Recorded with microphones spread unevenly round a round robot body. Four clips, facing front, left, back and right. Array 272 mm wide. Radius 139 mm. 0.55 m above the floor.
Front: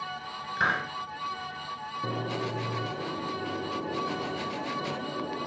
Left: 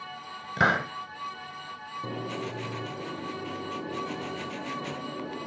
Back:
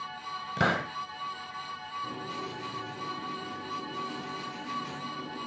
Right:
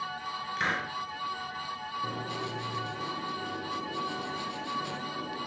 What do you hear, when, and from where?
0.6 s a hiss: 125° left, 1.3 m
2.0 s writing: 20° left, 1.7 m